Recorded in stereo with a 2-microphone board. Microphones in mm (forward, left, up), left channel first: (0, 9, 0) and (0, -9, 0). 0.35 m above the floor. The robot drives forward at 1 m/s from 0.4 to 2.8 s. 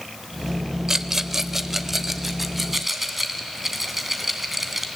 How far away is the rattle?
About 0.7 m.